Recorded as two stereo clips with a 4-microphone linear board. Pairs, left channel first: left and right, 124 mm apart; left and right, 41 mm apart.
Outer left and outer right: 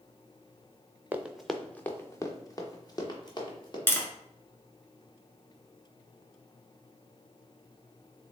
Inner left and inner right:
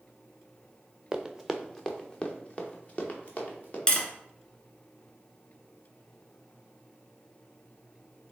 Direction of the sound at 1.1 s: 15° right (ahead or behind).